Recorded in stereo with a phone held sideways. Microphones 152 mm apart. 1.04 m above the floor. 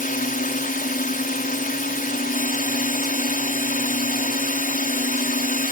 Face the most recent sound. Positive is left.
turn(degrees=65)  # may be behind; listen again after turning